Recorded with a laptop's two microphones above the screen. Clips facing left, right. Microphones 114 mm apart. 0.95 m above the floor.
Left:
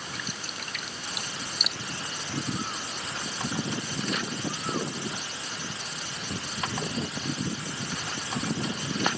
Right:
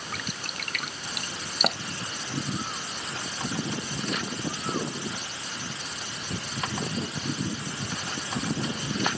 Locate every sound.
0.1 s dripping: 60° right (ahead or behind)